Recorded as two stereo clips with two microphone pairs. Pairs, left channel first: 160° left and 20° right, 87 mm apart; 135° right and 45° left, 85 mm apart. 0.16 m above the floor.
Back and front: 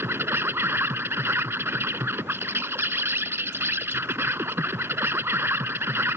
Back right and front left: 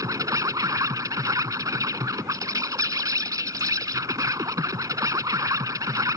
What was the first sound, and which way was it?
An insect, 30° left.